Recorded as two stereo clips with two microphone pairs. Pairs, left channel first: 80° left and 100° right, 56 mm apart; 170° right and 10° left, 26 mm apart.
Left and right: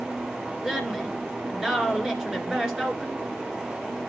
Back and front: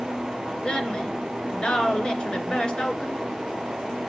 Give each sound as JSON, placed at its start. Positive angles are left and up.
{"t": 0.6, "sound": "a woman speaking", "azimuth_deg": 180, "distance_m": 2.0}